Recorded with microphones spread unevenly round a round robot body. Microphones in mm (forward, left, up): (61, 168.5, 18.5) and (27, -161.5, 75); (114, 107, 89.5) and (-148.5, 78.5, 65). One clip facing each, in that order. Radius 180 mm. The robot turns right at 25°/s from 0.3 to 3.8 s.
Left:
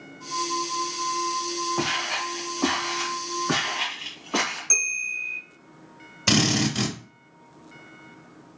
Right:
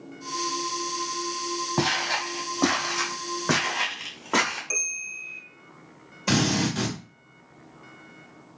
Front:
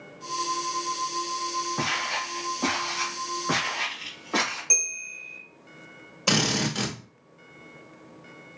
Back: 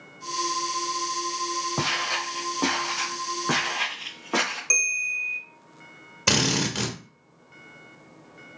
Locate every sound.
1.8 s footsteps: 135° right, 1.1 m; by 4.6 s 115° right, 2 m
4.7 s a bell: 125° left, 1.5 m
6.3 s a drill: 130° left, 1.4 m